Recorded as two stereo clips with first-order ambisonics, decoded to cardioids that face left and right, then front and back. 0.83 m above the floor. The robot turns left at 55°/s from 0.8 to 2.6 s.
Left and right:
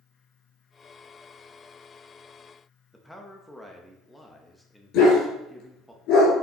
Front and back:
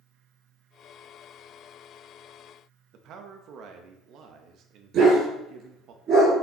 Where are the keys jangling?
No keys jangling in this recording.